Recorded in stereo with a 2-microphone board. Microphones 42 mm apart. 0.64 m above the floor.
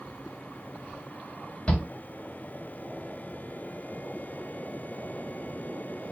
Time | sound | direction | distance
1.7 | a shout | 30° left (ahead or behind) | 1.1 m